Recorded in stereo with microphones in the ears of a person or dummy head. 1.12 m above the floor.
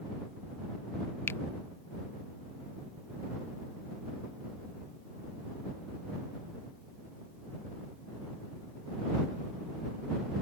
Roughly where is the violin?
I don't hear a violin.